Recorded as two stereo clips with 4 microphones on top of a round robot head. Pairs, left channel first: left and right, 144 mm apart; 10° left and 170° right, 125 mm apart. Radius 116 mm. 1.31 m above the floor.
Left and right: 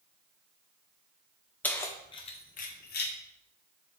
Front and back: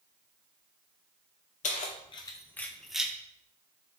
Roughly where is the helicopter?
I don't hear a helicopter.